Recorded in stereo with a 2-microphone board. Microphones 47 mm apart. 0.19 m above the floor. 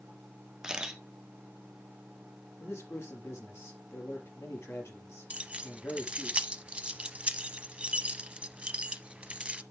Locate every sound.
0.6 s a camera shutter: 15° right (ahead or behind), 1.5 m
2.6 s a man speaking: 70° left (ahead or behind), 4.5 m
5.3 s keys jangling: 25° right (ahead or behind), 0.8 m